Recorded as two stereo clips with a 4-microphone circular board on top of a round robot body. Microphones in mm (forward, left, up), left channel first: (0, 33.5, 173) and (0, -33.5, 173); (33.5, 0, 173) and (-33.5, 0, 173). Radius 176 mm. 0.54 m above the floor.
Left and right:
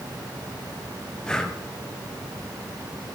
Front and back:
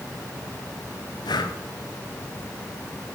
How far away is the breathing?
About 1.2 m.